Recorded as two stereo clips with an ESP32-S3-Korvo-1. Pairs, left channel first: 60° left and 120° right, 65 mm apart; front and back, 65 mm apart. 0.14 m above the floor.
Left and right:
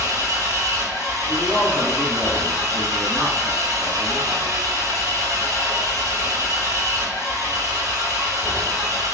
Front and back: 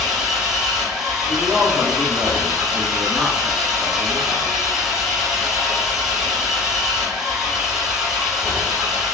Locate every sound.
0.0 s an engine running: 100° right, 1.9 m
1.3 s a man speaking: 85° right, 1.6 m